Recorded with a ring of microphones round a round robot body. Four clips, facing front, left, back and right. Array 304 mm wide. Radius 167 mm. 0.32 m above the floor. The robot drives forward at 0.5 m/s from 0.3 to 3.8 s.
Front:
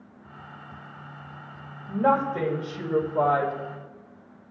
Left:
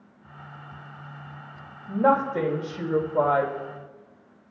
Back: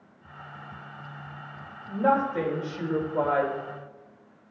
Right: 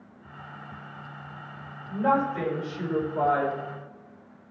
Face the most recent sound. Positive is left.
turn(degrees=110)